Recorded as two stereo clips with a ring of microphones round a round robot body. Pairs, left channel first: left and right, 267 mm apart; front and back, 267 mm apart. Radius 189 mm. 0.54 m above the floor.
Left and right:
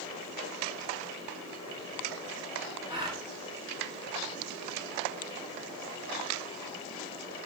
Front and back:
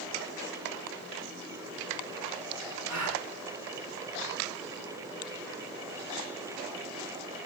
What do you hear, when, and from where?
2.9 s a gasp: 175° left, 5 m